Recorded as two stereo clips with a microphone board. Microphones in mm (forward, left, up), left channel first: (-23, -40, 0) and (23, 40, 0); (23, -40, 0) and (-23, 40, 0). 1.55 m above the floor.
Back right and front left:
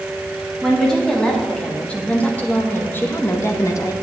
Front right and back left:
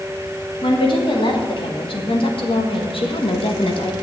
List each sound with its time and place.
0.6 s a woman speaking: 35° right, 3 m; by 3.9 s 70° right, 1.2 m